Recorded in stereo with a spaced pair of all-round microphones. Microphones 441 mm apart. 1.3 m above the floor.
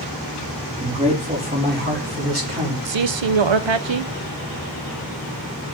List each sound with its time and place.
0.8 s a man speaking: 10° right (ahead or behind), 2.5 m; by 2.8 s 40° right (ahead or behind), 3 m
2.9 s a man speaking: 80° right, 0.6 m